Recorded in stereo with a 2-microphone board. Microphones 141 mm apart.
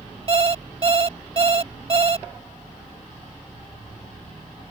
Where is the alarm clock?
40° right (ahead or behind).